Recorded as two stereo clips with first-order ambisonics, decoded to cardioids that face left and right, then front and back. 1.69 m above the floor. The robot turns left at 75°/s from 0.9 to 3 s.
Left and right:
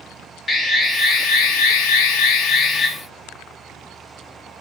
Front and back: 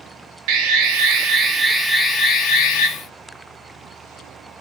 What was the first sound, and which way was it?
An alarm, 165° left.